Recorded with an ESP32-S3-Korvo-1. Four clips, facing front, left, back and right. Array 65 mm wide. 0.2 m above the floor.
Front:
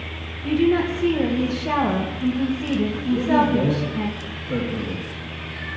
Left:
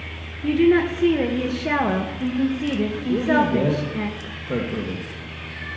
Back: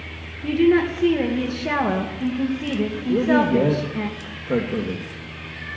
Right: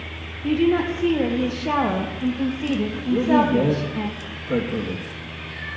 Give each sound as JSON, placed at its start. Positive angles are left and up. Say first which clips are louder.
{"t": 0.4, "sound": "a woman speaking", "louder": "left 2 dB, back 2 dB", "azimuth_deg": 125, "distance_m": 2.5}
{"t": 3.1, "sound": "a man speaking", "louder": "right 2 dB, back 1 dB", "azimuth_deg": 165, "distance_m": 3.0}